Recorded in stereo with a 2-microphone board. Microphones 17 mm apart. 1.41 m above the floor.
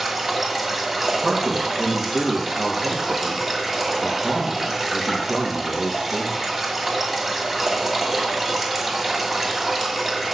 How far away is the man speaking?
About 1.8 m.